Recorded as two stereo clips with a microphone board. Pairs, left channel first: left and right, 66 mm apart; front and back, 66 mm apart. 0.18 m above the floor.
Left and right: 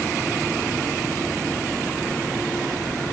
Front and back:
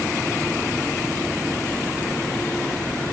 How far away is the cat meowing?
No cat meowing in this recording.